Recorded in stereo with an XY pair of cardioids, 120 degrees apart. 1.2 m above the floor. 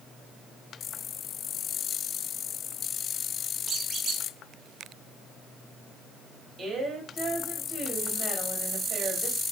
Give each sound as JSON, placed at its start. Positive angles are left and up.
{"t": 3.7, "sound": "a squeak", "azimuth_deg": -45, "distance_m": 0.9}
{"t": 6.6, "sound": "a woman speaking", "azimuth_deg": -30, "distance_m": 2.5}